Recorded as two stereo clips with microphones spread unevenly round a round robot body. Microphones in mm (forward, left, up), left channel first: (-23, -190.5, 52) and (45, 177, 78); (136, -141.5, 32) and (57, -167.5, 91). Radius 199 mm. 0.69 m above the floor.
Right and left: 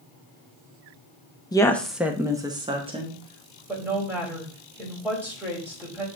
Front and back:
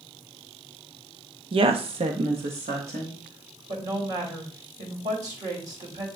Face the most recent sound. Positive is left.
turn(degrees=165)